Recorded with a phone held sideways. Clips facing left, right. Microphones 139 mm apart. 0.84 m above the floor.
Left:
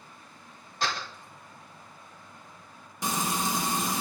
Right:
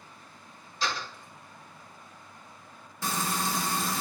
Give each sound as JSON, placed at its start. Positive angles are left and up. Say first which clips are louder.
{"t": 0.8, "sound": "a door slam", "louder": "left 1 dB", "side_deg": 60, "distance_m": 3.5}
{"t": 3.0, "sound": "frying", "louder": "left 1 dB", "side_deg": 20, "distance_m": 0.8}